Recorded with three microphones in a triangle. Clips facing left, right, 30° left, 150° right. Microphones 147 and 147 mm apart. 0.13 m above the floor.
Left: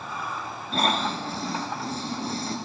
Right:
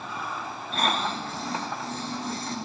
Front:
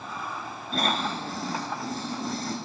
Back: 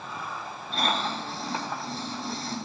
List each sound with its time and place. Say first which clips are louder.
0.7 s snoring: left 2 dB, front 1 dB; 50° left, 1.4 m